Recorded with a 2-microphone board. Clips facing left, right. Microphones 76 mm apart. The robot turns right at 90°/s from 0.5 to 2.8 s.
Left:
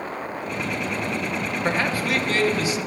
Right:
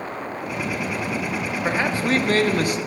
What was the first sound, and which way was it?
A man speaking, straight behind.